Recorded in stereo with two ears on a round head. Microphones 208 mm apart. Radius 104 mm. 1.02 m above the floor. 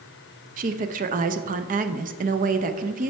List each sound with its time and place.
0.6 s a woman speaking: 35° right (ahead or behind), 0.6 m